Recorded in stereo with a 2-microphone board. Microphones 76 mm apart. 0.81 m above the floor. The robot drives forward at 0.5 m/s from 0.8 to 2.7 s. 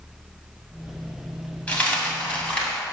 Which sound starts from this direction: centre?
A dropped coin, at 1.7 s.